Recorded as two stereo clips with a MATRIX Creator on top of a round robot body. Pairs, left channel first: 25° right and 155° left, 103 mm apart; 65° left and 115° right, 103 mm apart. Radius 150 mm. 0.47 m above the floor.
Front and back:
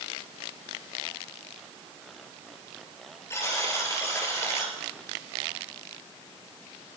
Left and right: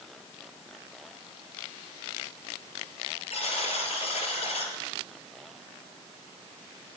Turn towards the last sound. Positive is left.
turn(degrees=45)